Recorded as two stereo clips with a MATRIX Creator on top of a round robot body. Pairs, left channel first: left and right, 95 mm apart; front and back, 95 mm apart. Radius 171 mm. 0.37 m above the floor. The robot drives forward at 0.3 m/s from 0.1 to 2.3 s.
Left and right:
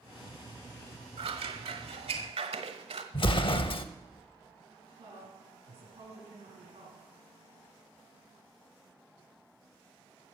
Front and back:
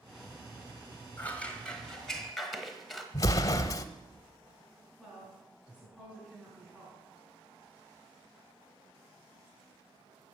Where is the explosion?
55° left, 0.6 m.